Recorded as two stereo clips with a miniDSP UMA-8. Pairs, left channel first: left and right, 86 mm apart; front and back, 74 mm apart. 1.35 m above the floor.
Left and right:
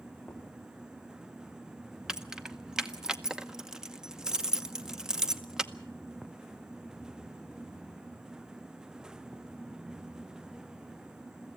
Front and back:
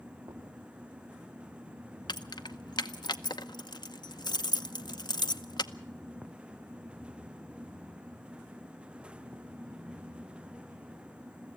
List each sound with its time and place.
0.2 s knocking: 170° left, 3 m
2.1 s keys jangling: 10° right, 0.8 m